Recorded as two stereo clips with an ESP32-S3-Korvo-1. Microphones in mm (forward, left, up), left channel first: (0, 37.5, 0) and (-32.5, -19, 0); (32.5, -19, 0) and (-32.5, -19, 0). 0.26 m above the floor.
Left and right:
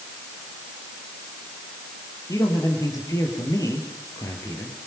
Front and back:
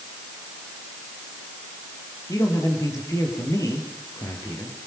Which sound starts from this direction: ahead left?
A man speaking, at 2.3 s.